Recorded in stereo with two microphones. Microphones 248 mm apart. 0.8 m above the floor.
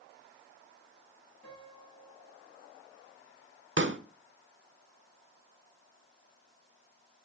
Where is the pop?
50° right (ahead or behind), 0.9 m.